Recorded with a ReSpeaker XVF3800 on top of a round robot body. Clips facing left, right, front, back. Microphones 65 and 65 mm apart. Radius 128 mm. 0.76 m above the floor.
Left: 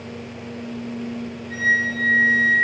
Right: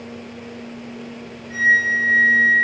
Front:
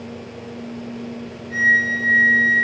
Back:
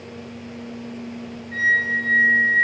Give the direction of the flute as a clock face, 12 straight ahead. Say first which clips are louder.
Right 4 dB, front 3 dB; 12 o'clock.